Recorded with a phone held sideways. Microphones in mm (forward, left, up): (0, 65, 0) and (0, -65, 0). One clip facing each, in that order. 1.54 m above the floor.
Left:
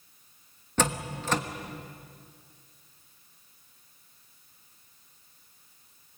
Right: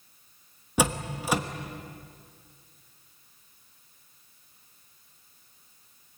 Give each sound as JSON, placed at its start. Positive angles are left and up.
{"t": 0.8, "sound": "a door slam", "side_deg": -10, "distance_m": 1.2}